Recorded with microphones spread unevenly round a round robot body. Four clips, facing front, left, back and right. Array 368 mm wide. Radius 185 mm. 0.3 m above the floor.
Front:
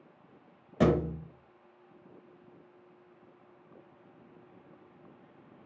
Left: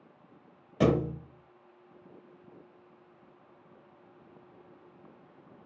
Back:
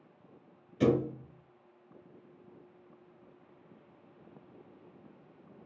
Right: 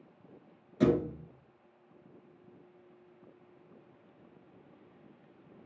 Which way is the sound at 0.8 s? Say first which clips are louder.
Left 1 dB, front 1 dB; 30° left.